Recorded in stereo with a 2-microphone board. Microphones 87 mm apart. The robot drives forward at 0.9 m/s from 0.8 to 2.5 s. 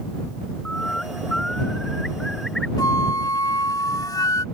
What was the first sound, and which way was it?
A bird, 10° left (ahead or behind).